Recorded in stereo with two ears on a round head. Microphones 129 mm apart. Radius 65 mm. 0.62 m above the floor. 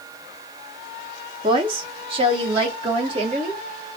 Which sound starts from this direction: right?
A woman speaking, at 1.4 s.